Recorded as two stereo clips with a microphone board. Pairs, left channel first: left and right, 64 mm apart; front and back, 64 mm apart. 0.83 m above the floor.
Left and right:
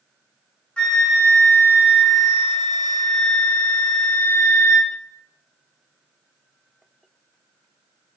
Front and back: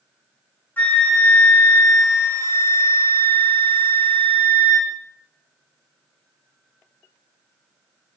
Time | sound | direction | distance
0.8 | a flute | 30° left | 0.5 m